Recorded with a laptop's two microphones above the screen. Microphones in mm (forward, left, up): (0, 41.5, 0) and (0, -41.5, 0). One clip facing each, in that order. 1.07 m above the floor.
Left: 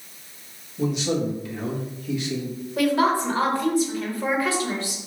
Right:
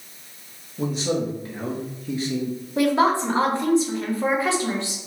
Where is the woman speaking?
20° right (ahead or behind), 1.4 m.